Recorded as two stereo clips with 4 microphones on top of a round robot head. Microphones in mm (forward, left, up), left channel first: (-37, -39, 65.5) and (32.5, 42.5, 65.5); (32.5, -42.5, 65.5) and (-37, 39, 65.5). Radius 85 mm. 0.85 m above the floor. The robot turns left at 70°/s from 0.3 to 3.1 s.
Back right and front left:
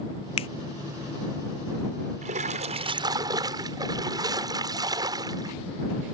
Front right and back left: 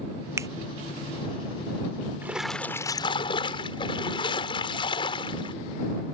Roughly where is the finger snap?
Behind.